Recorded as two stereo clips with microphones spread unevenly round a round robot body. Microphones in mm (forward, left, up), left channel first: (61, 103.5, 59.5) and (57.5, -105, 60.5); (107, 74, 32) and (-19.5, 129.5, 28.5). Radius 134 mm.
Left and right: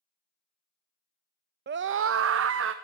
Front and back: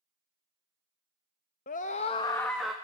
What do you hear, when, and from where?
1.7 s a scream: 50° right, 0.7 m; by 2.7 s 115° right, 1.0 m